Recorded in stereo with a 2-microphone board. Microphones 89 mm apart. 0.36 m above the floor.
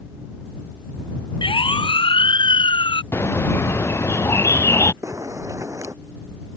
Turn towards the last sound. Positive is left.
turn(degrees=-35)  # may be behind; listen again after turning